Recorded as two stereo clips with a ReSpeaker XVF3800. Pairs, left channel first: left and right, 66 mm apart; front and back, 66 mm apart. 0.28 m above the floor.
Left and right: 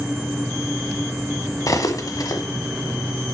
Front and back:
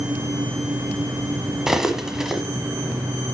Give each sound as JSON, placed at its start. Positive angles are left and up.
{"t": 1.7, "sound": "cutlery clinking", "azimuth_deg": 95, "distance_m": 1.1}